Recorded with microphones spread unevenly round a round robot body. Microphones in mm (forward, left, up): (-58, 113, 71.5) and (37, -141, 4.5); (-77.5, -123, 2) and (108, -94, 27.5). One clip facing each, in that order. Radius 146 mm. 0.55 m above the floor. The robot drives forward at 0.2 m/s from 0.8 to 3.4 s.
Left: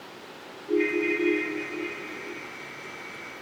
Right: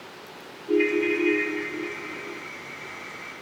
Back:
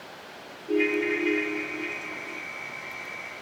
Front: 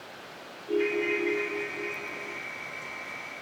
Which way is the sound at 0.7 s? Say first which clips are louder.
Right 3 dB, back 2 dB; 110° right.